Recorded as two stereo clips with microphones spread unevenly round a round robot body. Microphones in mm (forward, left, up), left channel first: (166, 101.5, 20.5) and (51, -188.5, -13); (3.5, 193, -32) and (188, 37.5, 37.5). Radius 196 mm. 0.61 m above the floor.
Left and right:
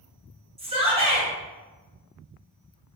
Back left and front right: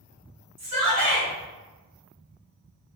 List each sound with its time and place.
0.6 s a shout: 60° right, 1.2 m